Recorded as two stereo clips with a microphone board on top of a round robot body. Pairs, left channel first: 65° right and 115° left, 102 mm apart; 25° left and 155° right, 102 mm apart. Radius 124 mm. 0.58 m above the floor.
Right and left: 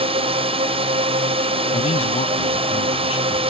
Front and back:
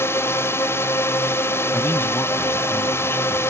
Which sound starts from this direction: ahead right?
A man speaking, at 1.7 s.